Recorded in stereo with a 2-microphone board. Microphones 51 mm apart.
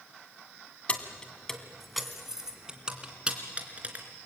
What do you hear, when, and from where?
0.9 s keys jangling: 25° left (ahead or behind), 1.7 m; by 4.0 s 30° right (ahead or behind), 3.5 m